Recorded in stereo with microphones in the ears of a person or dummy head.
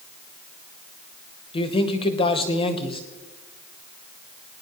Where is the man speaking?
40° left (ahead or behind), 1.1 m.